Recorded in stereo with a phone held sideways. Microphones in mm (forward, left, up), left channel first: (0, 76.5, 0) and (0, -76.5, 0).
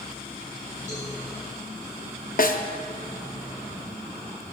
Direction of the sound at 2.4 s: 65° left (ahead or behind).